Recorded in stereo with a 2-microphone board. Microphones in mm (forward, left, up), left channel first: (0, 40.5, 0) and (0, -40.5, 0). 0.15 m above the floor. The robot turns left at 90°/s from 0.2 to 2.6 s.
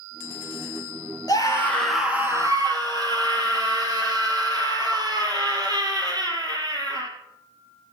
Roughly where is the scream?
Ahead left.